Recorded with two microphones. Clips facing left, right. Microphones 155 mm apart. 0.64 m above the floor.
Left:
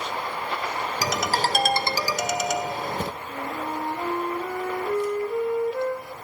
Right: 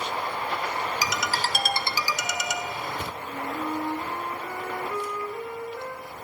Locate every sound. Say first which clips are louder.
1.0 s a ringtone: left 4 dB; 45° left (ahead or behind), 1.2 m
3.2 s a flute: even; 60° left (ahead or behind), 4 m